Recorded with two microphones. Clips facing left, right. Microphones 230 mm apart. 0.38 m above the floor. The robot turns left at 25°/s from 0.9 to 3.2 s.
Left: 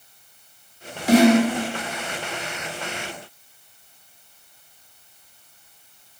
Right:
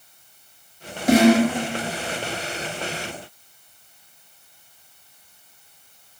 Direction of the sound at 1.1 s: 50° right (ahead or behind).